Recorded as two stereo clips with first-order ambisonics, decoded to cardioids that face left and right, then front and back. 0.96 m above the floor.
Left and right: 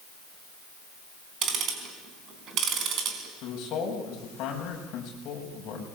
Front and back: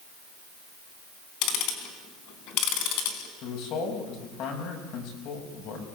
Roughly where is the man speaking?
Ahead left.